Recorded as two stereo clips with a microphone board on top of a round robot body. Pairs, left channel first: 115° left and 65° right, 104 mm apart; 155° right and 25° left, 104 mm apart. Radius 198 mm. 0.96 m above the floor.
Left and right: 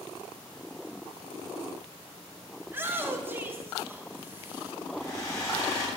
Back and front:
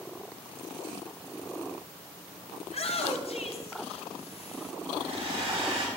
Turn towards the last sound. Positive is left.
turn(degrees=55)